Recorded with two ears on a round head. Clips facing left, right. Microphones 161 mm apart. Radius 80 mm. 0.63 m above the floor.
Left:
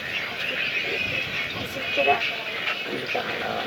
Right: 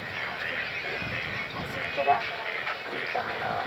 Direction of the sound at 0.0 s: 35° left (ahead or behind).